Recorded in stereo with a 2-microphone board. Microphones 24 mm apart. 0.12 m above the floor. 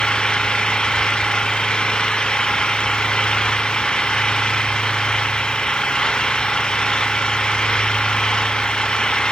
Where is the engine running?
35° left (ahead or behind).